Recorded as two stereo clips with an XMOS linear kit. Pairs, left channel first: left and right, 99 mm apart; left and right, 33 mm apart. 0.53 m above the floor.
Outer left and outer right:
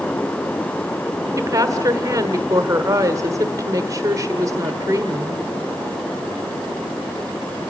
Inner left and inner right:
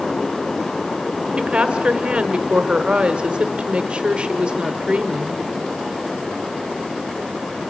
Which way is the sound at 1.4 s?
35° right (ahead or behind).